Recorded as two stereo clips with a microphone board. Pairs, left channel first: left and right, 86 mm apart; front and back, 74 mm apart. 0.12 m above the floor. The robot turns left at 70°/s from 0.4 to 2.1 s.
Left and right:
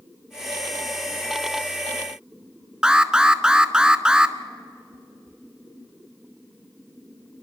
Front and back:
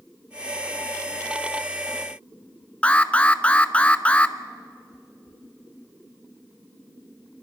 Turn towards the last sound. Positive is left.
turn(degrees=-30)